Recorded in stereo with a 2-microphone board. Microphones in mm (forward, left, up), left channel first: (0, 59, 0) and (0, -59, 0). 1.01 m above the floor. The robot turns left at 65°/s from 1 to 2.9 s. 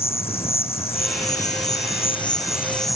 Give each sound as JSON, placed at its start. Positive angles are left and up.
{"t": 0.0, "sound": "an insect", "azimuth_deg": 120}